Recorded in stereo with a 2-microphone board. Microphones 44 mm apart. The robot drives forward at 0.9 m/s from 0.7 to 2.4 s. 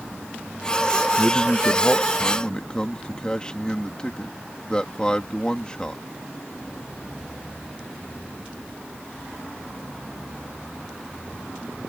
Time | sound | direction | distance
1.2 | a man speaking | 30° left (ahead or behind) | ?